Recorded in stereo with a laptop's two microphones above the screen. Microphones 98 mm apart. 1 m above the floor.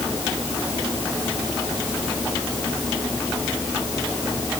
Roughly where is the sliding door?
I don't hear a sliding door.